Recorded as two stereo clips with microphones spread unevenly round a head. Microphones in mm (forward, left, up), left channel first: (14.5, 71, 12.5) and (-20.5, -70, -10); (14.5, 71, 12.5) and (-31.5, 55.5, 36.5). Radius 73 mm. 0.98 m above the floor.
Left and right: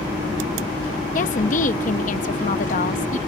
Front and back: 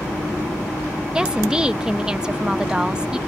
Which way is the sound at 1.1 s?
115° left.